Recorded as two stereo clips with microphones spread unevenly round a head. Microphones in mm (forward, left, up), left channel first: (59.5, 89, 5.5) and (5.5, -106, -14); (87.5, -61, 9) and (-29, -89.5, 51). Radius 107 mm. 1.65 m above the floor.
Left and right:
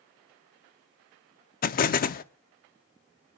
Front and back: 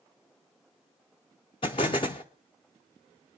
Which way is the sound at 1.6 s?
90° left.